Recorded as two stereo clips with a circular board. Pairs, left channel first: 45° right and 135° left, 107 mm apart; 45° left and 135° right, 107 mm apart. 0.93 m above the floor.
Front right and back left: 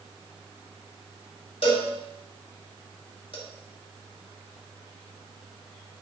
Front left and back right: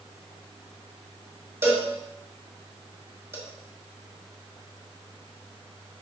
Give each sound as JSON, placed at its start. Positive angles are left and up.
{"t": 1.6, "sound": "a cowbell", "azimuth_deg": -70, "distance_m": 2.0}